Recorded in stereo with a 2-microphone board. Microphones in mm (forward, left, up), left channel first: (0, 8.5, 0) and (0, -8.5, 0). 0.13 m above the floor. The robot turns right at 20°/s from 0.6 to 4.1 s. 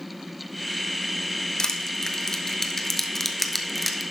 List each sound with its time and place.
1.6 s crushing: 40° left (ahead or behind), 0.7 m; by 4.0 s centre (ahead or behind), 0.7 m